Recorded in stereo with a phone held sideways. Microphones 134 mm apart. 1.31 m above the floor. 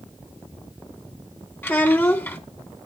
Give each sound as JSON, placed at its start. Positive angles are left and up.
{"t": 1.6, "sound": "a child speaking", "side_deg": 15, "distance_m": 2.0}